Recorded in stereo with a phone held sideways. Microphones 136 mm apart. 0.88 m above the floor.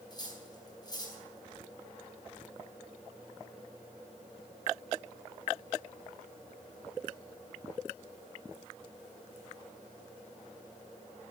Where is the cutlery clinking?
30° left (ahead or behind), 4.5 m.